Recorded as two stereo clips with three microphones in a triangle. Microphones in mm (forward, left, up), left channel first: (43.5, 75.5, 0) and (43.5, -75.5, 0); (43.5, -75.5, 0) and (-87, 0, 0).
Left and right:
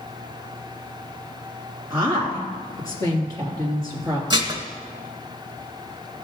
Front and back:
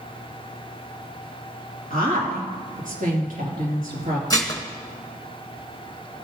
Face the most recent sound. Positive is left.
turn(degrees=-70)